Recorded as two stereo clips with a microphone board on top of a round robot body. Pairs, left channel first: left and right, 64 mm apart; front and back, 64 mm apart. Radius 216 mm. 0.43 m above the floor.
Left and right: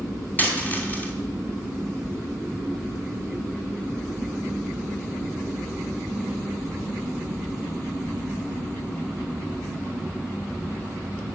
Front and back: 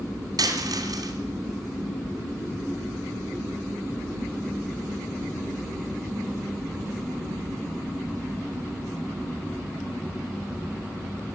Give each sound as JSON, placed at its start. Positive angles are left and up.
{"t": 0.4, "sound": "a dropped coin", "azimuth_deg": 155, "distance_m": 2.5}